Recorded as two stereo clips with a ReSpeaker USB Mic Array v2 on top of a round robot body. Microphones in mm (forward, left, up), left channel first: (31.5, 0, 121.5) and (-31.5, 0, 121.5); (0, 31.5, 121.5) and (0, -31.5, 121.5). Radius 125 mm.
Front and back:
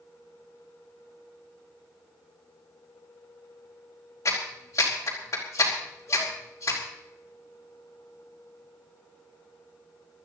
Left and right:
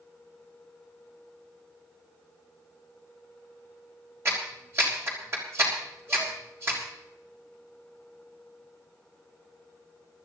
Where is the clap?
45° right, 5 m.